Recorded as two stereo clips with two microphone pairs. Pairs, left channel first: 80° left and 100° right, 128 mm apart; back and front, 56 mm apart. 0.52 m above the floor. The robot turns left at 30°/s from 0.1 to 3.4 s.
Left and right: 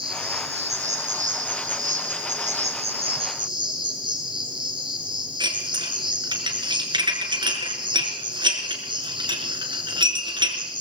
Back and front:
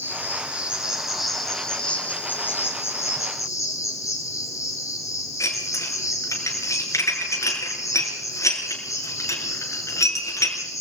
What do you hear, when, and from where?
0.0 s an insect: 50° right, 4 m; by 10.8 s 150° right, 4 m
5.4 s dishes clattering: 150° right, 4.5 m